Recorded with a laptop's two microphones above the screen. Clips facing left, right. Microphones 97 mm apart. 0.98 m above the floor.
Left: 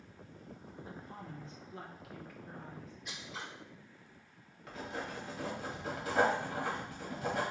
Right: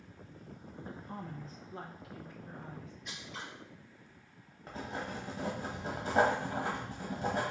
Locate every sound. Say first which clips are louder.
0.8 s a woman speaking: right 4 dB; 45° right (ahead or behind), 0.7 m; by 3.0 s 20° right (ahead or behind), 1.4 m
3.0 s scissors: left 1 dB; 5° left (ahead or behind), 1.3 m
4.7 s writing: right 1 dB; 30° right (ahead or behind), 1.4 m